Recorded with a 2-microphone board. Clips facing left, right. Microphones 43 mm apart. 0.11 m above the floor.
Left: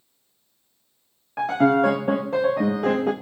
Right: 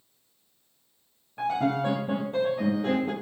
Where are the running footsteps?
I don't hear running footsteps.